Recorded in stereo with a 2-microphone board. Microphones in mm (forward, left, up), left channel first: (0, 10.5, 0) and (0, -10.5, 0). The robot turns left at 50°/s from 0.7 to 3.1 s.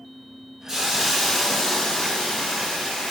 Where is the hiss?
160° right, 1.1 m; by 3.1 s 80° left, 1.1 m.